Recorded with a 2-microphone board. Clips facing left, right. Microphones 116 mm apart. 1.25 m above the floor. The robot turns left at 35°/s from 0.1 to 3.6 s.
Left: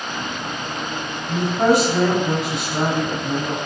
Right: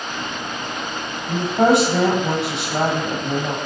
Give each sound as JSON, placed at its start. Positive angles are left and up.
{"t": 1.3, "sound": "a woman speaking", "azimuth_deg": -45, "distance_m": 1.1}